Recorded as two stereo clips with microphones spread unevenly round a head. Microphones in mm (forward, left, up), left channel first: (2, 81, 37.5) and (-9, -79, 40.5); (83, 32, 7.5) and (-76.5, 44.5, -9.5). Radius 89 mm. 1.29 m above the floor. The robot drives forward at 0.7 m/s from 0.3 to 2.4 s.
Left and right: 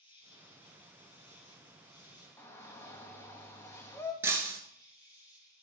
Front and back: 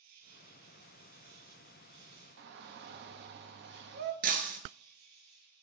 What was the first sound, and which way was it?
An insect, 150° left.